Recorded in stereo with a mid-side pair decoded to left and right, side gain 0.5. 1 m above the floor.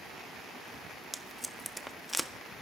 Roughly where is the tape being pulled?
Ahead.